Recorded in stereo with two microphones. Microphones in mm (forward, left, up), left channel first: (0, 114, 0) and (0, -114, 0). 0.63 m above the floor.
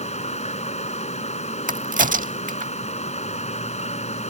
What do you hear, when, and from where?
0.0 s running water: 30° left (ahead or behind)
1.7 s a crack: 35° right (ahead or behind)